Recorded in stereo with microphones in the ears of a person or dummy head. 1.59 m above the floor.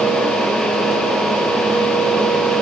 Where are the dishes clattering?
No dishes clattering in this recording.